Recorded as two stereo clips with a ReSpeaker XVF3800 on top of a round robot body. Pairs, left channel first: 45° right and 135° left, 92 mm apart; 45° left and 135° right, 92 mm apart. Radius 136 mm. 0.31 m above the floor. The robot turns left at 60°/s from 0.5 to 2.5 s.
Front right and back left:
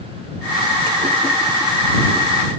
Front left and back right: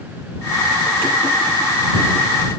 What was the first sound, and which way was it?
Only background noise.